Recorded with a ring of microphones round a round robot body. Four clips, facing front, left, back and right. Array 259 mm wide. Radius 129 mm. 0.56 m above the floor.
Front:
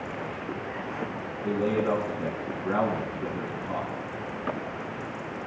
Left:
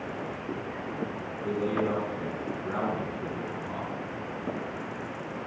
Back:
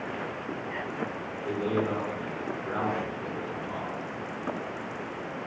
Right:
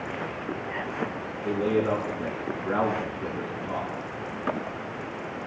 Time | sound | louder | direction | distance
1.4 | a man speaking | right 4 dB, front 3 dB | straight ahead | 5 m